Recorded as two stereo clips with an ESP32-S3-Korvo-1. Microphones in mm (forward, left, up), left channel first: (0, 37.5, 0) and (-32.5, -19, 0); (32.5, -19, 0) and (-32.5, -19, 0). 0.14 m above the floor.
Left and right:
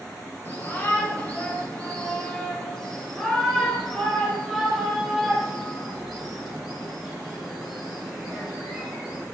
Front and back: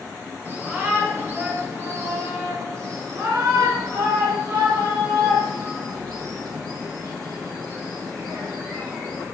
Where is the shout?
120° left, 3.5 m; by 9.2 s 165° left, 7 m.